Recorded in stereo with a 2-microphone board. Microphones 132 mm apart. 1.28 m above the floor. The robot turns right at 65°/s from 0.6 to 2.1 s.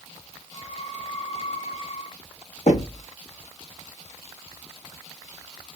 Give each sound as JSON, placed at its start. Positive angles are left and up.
{"t": 2.7, "sound": "knocking", "side_deg": 65, "distance_m": 1.2}